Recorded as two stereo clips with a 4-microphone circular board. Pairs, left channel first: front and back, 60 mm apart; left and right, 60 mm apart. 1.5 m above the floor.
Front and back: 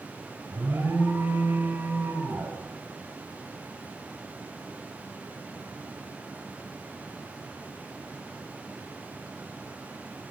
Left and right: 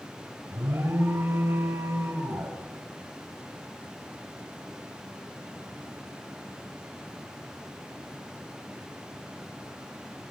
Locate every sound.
0.5 s an alarm: 130° right, 4.5 m